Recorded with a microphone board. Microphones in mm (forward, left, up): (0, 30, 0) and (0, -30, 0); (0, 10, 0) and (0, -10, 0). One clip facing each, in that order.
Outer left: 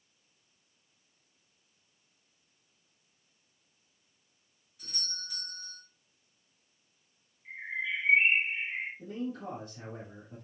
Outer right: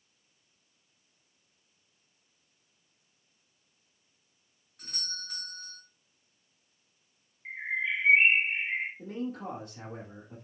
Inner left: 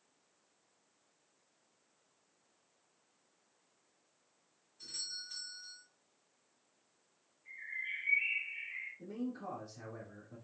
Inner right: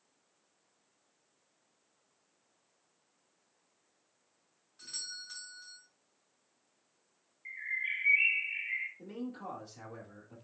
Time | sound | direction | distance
4.8 | a doorbell | 65° right (ahead or behind) | 5 m
7.5 | a bird | 70° right (ahead or behind) | 3 m
9.0 | a man speaking | 80° right | 5 m